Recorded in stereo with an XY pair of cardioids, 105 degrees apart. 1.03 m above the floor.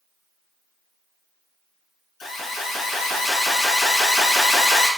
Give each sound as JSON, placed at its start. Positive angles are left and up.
{"t": 2.2, "sound": "an alarm", "azimuth_deg": 60, "distance_m": 0.9}